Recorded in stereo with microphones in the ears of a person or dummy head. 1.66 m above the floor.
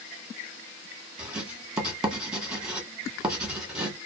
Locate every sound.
1.2 s writing: 10° right (ahead or behind), 1.0 m